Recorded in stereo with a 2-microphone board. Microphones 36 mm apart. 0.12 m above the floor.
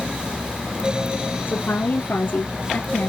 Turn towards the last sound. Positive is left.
turn(degrees=50)  # may be behind; listen again after turning